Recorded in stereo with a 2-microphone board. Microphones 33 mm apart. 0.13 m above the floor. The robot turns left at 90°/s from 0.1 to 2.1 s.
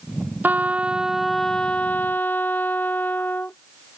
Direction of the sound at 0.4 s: 105° right.